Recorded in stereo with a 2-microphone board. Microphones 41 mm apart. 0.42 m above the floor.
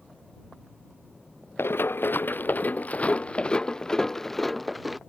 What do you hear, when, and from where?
1.6 s running footsteps: 75° left (ahead or behind); by 5.0 s centre (ahead or behind)